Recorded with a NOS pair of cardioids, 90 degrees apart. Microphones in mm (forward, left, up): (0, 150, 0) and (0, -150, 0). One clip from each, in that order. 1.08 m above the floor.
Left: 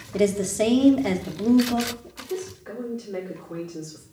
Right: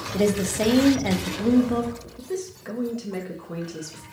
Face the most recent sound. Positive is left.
turn(degrees=-65)